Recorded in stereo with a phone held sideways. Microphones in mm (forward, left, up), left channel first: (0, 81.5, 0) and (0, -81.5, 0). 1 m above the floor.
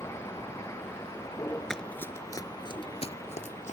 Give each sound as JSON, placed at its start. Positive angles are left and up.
{"t": 0.0, "sound": "a vehicle", "side_deg": 15}
{"t": 1.7, "sound": "running footsteps", "side_deg": 5}